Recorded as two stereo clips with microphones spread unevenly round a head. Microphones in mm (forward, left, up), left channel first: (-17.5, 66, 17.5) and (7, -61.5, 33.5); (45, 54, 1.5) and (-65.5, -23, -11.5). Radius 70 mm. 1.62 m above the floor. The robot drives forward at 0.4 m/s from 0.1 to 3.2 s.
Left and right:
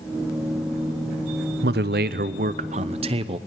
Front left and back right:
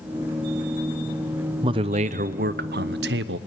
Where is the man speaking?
85° right, 0.7 m; by 3.4 s 130° right, 0.9 m.